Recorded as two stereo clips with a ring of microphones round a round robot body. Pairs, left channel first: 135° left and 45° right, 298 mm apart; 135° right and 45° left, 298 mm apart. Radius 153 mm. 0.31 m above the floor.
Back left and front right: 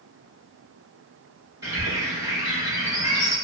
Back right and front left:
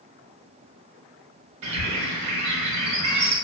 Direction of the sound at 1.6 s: 35° left.